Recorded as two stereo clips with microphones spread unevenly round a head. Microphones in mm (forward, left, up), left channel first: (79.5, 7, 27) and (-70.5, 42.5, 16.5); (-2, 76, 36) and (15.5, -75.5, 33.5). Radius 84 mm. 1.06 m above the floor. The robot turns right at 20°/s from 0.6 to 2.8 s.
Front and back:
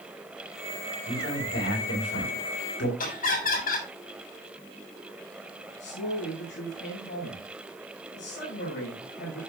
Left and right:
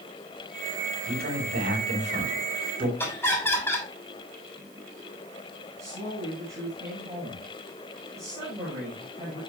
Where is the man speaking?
60° right, 6 m; by 2.9 s 25° right, 6 m.